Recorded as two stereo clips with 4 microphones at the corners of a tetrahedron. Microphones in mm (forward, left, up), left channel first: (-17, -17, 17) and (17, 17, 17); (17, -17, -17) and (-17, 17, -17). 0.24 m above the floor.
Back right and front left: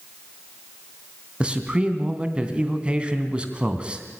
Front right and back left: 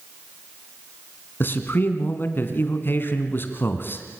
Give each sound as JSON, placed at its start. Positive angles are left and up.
{"t": 1.4, "sound": "a man speaking", "azimuth_deg": -20, "distance_m": 3.0}